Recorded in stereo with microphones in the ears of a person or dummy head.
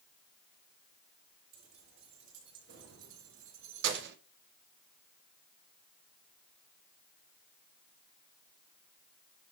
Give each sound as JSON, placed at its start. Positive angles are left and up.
{"t": 1.5, "sound": "keys jangling", "side_deg": -60, "distance_m": 2.0}